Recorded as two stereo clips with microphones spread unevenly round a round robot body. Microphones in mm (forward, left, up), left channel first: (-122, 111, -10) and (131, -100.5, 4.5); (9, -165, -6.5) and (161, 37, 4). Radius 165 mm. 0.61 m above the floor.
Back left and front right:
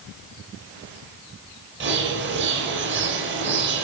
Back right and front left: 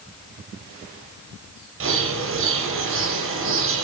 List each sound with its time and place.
1.8 s a bird: 15° left, 9 m